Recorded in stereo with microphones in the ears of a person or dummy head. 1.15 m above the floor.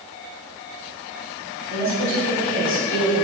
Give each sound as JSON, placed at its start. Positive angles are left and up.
{"t": 1.7, "sound": "a woman speaking", "side_deg": 35, "distance_m": 1.8}